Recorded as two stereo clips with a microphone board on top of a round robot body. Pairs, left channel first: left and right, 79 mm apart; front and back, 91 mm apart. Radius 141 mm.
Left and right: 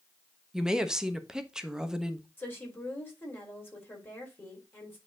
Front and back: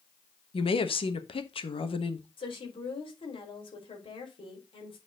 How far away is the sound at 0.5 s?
About 1.3 m.